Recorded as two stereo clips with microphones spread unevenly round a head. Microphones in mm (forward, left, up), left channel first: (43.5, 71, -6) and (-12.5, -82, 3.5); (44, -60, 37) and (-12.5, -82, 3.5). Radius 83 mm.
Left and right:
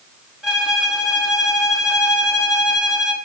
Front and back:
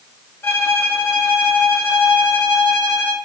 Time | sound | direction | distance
0.4 | a violin | 25° right | 3.5 m